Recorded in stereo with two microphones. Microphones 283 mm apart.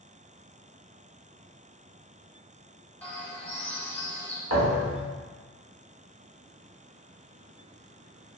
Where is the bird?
5° left (ahead or behind), 0.7 m.